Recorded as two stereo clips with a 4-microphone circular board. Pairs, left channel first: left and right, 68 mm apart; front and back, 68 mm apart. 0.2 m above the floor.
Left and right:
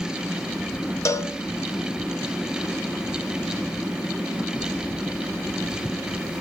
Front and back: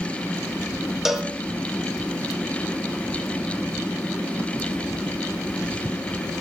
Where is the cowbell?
95° left, 0.5 m.